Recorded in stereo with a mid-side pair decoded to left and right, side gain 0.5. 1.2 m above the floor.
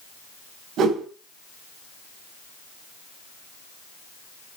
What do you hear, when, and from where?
0.8 s a whoosh: 65° right, 5 m